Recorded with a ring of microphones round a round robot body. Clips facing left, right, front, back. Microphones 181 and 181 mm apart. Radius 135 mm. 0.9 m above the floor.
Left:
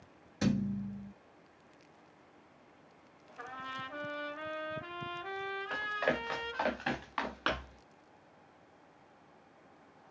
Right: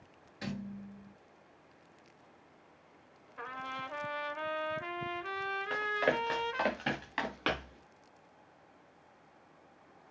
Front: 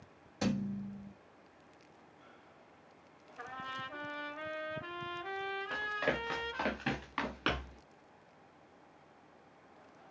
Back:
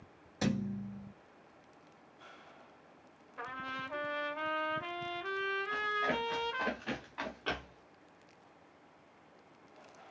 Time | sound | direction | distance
0.4 | a thud | 100° left | 1.2 m
3.4 | a trumpet | 135° right | 1.0 m
5.7 | running footsteps | 35° right | 7 m